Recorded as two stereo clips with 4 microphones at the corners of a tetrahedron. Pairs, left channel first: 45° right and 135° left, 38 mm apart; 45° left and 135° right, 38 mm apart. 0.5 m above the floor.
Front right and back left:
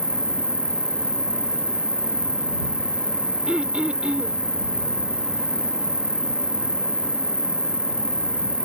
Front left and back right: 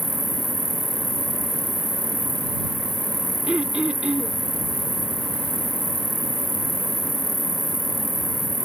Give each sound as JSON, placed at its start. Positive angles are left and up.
{"t": 0.0, "sound": "an insect", "azimuth_deg": -160}
{"t": 3.5, "sound": "throat clearing", "azimuth_deg": 180}